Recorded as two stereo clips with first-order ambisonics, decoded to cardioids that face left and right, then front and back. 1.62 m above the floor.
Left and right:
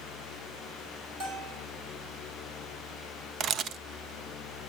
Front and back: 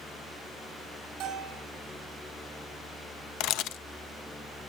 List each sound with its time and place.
1.2 s a bell: 140° right, 6 m
3.4 s a camera shutter: 35° right, 0.6 m